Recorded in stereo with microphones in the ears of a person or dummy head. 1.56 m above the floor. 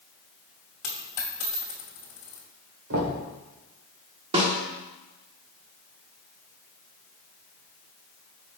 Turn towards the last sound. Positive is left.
turn(degrees=-35)  # may be behind; listen again after turning